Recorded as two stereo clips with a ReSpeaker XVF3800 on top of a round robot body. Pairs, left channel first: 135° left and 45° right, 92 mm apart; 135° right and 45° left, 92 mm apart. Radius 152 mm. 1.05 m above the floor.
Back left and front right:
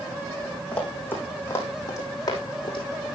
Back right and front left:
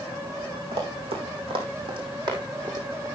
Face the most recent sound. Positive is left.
turn(degrees=100)